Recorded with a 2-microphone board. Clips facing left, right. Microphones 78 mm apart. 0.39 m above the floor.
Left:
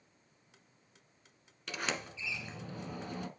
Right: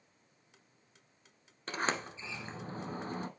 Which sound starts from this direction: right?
A sliding door, at 1.7 s.